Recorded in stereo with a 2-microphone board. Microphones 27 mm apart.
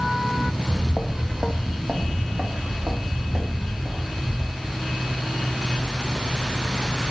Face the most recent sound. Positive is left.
turn(degrees=-50)  # may be behind; listen again after turning